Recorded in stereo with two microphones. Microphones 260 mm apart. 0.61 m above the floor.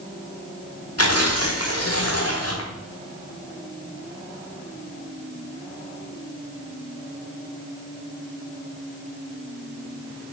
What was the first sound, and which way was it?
Tearing paper, 65° left (ahead or behind).